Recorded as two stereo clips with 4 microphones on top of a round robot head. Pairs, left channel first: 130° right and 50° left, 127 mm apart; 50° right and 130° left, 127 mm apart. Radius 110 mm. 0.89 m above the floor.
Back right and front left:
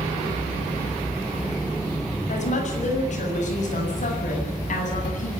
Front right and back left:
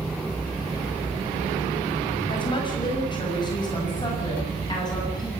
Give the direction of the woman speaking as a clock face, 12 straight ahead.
3 o'clock.